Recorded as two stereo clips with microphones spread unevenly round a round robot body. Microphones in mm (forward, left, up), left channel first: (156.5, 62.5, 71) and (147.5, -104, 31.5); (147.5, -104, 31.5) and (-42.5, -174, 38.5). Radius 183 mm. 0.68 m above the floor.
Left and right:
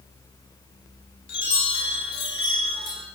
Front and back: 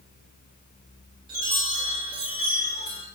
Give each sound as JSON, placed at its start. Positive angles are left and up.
{"t": 1.3, "sound": "a chime", "azimuth_deg": 125, "distance_m": 2.0}